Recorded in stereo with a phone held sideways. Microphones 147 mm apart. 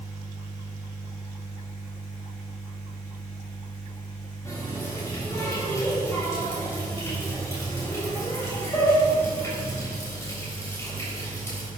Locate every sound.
4.5 s a running tap: 20° left (ahead or behind), 4 m